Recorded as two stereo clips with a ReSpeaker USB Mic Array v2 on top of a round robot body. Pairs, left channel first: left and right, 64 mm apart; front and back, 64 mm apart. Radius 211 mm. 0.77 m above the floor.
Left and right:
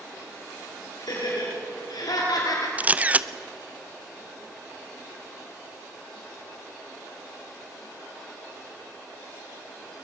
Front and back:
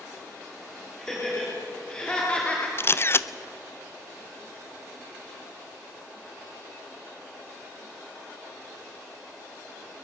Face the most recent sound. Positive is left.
turn(degrees=-30)